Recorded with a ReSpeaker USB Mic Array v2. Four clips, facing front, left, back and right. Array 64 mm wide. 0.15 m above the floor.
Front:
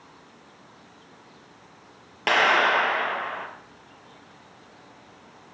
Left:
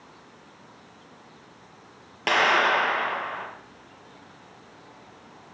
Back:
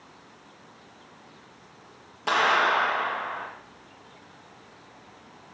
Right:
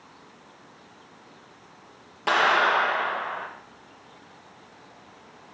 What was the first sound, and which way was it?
A clap, 30° left.